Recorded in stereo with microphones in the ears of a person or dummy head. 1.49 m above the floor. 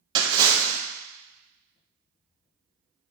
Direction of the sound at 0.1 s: 25° right (ahead or behind).